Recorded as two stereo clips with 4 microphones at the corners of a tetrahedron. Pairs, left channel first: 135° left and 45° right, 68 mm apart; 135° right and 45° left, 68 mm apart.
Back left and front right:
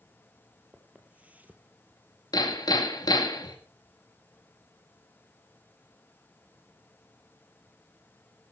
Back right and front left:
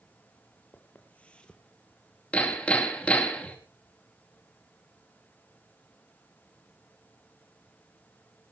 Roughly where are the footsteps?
Right.